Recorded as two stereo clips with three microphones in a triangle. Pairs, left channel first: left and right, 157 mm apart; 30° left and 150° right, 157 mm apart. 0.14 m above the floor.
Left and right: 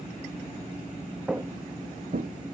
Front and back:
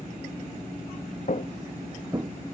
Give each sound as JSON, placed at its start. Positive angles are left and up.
{"t": 1.3, "sound": "footsteps", "azimuth_deg": 0, "distance_m": 0.6}